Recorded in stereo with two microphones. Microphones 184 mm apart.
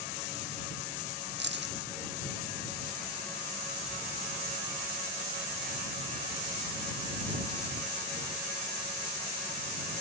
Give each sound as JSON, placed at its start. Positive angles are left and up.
{"t": 1.4, "sound": "keys jangling", "side_deg": -75}